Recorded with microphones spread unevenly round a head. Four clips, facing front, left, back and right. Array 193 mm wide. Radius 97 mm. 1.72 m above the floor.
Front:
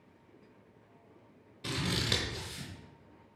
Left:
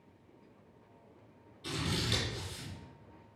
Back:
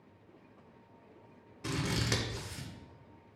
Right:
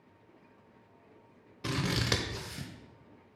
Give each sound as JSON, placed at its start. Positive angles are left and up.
{"t": 1.6, "sound": "scissors", "azimuth_deg": -85, "distance_m": 0.9}